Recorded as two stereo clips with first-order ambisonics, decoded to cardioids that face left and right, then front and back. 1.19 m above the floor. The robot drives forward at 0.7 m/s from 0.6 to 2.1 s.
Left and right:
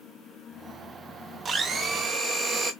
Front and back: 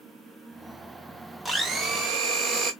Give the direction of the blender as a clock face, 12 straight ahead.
4 o'clock.